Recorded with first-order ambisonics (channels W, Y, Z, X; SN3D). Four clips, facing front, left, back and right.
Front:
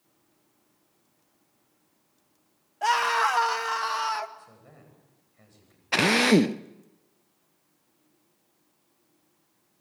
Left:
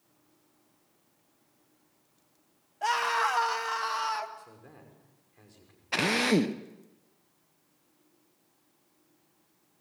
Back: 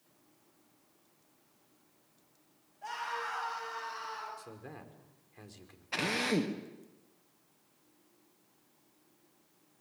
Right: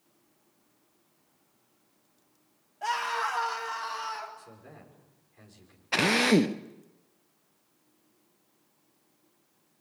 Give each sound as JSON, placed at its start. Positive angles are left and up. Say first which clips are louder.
{"t": 2.8, "sound": "a scream", "louder": "left 3 dB, front 15 dB", "azimuth_deg": 15, "distance_m": 1.8}
{"t": 4.4, "sound": "a man speaking", "louder": "right 1 dB, back 4 dB", "azimuth_deg": 180, "distance_m": 6.0}
{"t": 5.9, "sound": "a drill", "louder": "right 3 dB, front 11 dB", "azimuth_deg": -15, "distance_m": 0.6}